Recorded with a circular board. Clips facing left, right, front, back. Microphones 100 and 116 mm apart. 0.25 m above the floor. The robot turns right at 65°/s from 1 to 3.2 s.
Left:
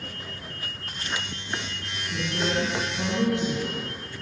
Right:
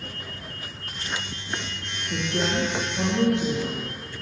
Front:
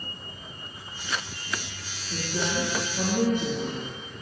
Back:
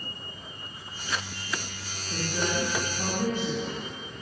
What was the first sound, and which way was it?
A woman speaking, 100° right.